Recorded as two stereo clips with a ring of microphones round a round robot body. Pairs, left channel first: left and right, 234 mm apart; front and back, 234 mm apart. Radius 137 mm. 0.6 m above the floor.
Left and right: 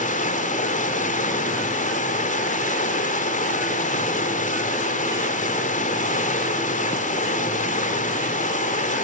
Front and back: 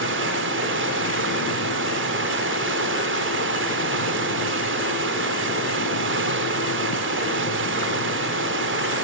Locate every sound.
0.0 s running water: 145° left, 1.9 m